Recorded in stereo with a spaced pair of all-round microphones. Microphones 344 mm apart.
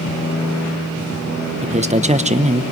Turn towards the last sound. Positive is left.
turn(degrees=-20)  # may be behind; listen again after turning